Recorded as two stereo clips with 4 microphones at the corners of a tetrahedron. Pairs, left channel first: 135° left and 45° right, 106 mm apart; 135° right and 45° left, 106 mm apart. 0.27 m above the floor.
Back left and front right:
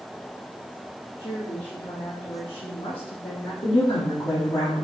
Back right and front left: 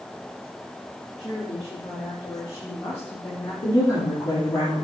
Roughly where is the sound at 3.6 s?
Behind.